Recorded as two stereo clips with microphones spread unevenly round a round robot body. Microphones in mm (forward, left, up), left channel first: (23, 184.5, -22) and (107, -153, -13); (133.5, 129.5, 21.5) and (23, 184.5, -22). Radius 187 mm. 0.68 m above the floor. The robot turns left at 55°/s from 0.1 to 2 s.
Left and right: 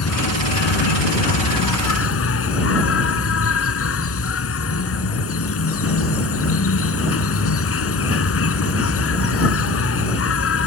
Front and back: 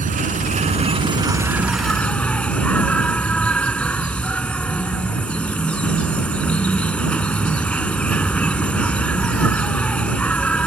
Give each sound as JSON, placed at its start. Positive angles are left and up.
{"t": 0.0, "sound": "an insect", "azimuth_deg": 155}